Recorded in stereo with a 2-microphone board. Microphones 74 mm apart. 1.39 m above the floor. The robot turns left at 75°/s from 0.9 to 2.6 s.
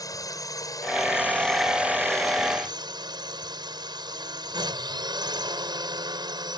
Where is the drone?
55° left; by 6.6 s 75° right.